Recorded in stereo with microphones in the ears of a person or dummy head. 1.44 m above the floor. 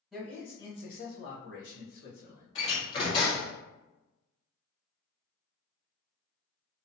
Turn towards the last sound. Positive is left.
turn(degrees=25)  # may be behind; listen again after turning